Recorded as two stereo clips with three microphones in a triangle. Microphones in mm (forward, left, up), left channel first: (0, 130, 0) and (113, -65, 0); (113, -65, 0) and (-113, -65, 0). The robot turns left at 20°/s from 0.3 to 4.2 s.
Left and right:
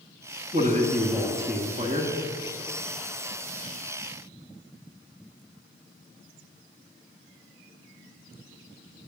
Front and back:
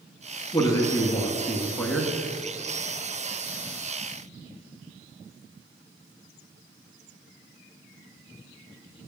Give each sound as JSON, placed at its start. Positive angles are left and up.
{"t": 0.5, "sound": "a man speaking", "azimuth_deg": -60, "distance_m": 1.4}